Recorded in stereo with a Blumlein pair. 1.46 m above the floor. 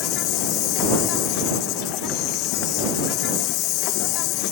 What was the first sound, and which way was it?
An insect, 40° left.